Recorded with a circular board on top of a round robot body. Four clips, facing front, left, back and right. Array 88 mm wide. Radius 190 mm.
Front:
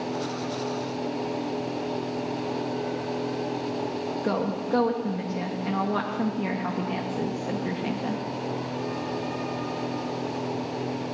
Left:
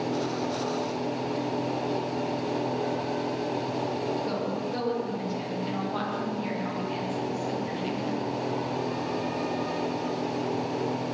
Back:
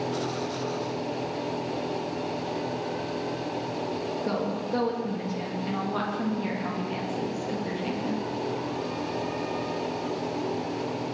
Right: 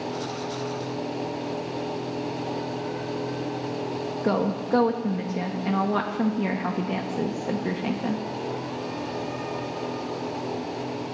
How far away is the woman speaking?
About 1.6 m.